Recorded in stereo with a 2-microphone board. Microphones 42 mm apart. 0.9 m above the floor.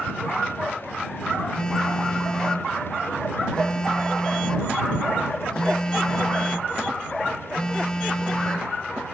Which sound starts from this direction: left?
A phone buzzing, at 1.6 s.